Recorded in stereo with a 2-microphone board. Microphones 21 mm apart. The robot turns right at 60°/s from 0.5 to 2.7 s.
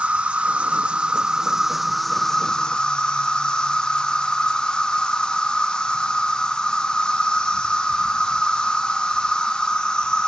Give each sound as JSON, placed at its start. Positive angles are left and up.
{"t": 0.0, "sound": "an insect", "azimuth_deg": -85, "distance_m": 1.1}